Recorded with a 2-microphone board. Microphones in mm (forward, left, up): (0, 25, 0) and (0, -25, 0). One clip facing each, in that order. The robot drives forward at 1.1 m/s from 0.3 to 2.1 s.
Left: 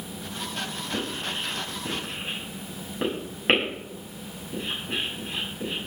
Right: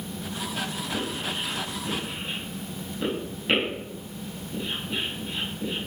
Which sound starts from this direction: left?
Writing, at 0.9 s.